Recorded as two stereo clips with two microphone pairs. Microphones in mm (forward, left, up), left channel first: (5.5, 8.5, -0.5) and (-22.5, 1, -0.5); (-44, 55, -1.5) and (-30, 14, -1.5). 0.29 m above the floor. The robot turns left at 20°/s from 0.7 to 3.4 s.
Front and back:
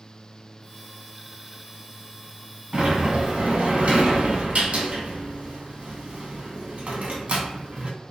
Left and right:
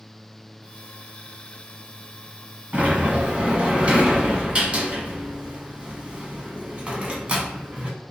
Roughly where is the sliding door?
Behind right.